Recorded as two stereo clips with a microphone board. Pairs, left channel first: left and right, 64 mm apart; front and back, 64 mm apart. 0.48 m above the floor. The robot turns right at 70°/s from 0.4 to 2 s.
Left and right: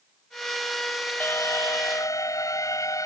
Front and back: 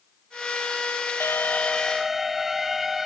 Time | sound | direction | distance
1.2 | an alarm | 40° left | ?